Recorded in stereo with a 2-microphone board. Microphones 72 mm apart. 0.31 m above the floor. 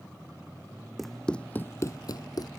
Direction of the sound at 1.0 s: Centre (ahead or behind).